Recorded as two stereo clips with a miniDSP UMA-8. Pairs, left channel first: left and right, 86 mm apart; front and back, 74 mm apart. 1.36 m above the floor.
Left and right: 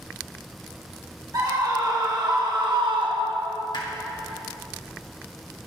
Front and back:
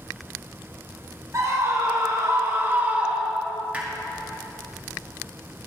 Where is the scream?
130° right, 3 m; by 3.6 s 80° right, 1.0 m.